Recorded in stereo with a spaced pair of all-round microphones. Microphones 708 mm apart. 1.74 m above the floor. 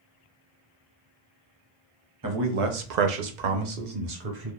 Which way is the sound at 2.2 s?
30° right (ahead or behind).